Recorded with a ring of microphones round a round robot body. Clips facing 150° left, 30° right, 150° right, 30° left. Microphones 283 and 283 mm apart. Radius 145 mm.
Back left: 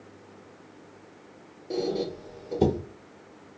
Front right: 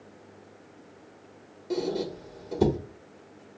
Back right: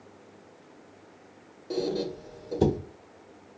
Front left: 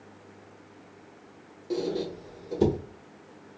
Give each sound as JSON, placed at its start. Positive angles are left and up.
{"t": 1.7, "sound": "a squeak", "azimuth_deg": -40, "distance_m": 0.9}